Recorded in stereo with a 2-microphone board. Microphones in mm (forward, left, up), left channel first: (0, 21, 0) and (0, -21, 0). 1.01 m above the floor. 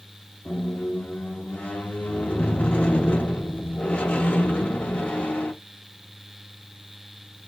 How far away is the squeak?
About 0.6 m.